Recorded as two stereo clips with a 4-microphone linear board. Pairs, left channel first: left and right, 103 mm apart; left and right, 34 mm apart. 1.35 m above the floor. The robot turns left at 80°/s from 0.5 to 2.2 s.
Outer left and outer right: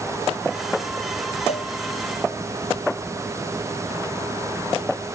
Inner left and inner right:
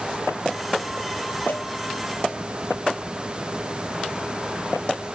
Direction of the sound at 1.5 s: 85° left.